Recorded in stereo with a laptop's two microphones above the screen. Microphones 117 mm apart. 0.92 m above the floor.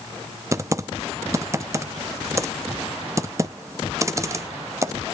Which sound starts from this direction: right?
Typing on a keyboard, at 0.5 s.